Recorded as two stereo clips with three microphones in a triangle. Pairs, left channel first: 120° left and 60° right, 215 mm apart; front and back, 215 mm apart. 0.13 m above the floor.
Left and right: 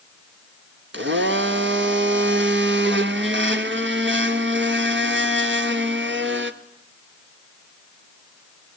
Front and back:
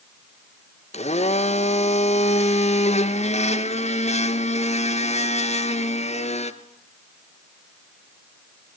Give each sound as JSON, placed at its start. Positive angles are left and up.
{"t": 0.9, "sound": "a blender", "azimuth_deg": -55, "distance_m": 1.1}